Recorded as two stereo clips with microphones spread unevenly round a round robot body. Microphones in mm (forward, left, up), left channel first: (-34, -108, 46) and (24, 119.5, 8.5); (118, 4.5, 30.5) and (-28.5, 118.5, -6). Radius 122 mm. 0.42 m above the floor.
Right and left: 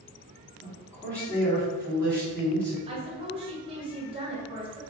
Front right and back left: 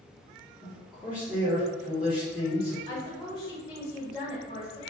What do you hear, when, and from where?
0.6 s a man speaking: 155° left, 1.4 m
2.9 s a woman speaking: 35° left, 1.3 m